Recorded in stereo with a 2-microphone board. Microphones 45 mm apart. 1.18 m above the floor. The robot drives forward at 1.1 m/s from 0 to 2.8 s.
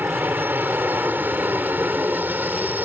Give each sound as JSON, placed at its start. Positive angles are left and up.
{"t": 0.0, "sound": "an aircraft", "side_deg": -45}